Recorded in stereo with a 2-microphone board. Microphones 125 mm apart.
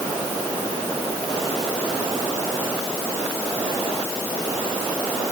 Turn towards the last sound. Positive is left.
No sound to turn to.